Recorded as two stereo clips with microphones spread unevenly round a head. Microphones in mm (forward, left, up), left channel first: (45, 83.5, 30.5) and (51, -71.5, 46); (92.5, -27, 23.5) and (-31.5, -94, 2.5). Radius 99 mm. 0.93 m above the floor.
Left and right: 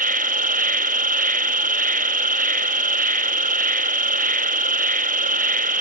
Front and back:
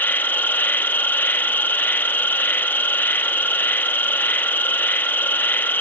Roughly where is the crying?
I don't hear crying.